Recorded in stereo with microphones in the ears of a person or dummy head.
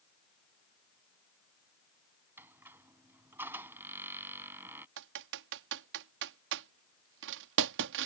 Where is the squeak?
15° right (ahead or behind).